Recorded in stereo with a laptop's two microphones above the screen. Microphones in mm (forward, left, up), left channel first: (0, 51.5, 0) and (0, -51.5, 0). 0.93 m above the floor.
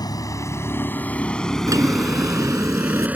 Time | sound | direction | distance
0.0 | a vehicle | 40° left (ahead or behind) | ?
1.7 | a drawer | 35° right (ahead or behind) | ?